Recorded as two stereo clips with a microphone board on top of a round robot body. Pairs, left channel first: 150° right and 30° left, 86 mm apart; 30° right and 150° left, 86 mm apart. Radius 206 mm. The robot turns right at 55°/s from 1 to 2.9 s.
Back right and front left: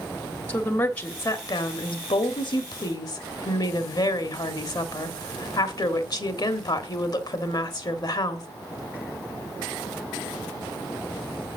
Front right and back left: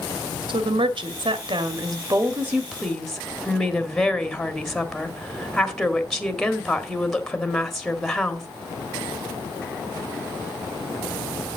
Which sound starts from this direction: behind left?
A woman speaking, at 0.5 s.